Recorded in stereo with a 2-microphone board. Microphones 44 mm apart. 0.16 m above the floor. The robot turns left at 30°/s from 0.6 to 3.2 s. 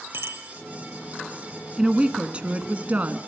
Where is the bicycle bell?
65° right (ahead or behind), 3 m.